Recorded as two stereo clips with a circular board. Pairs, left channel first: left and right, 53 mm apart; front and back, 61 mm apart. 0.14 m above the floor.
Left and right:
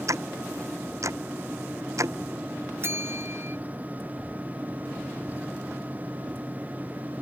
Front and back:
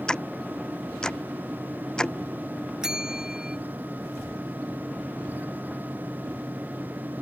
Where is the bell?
100° right.